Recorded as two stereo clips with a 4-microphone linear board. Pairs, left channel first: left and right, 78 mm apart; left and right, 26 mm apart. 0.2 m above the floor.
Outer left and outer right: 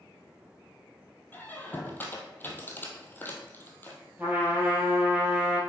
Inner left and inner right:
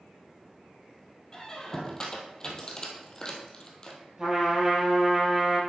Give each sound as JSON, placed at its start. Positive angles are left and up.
{"t": 1.3, "sound": "a squeak", "side_deg": 25, "distance_m": 1.6}
{"t": 4.2, "sound": "a trumpet", "side_deg": -20, "distance_m": 3.5}